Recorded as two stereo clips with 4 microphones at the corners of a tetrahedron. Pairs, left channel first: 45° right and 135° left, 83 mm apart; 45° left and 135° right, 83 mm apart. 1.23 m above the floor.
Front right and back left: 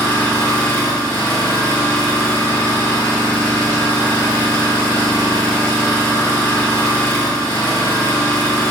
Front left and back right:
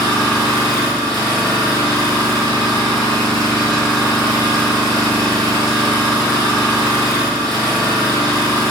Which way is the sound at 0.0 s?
110° right.